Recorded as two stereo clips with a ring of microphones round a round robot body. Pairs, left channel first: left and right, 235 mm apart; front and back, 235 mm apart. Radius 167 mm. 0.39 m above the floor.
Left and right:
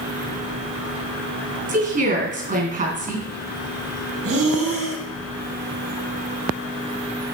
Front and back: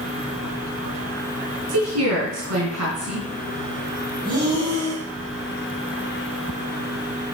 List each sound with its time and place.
1.7 s a woman speaking: 140° right, 3 m
4.2 s breathing: 105° right, 2 m